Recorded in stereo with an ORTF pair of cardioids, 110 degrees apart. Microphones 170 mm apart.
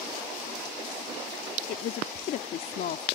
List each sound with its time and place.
1.7 s a woman speaking: 60° left